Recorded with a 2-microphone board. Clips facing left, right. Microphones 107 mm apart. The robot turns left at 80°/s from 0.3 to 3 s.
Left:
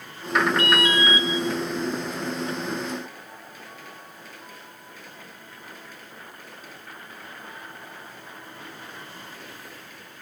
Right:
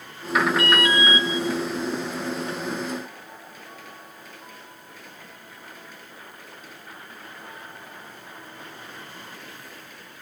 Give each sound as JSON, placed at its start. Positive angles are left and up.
{"t": 0.6, "sound": "an alarm", "azimuth_deg": 55, "distance_m": 6.5}